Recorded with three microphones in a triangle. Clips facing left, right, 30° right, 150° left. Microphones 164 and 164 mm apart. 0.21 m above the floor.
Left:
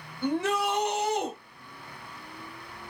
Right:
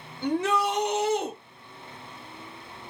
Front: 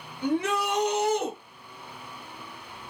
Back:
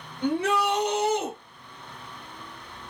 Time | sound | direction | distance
0.2 | a shout | 170° right | 2.0 m